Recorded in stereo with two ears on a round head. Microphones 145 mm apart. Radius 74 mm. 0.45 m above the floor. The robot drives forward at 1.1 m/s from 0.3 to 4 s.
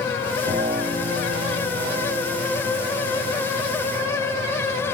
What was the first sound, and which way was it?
A piano, 35° right (ahead or behind).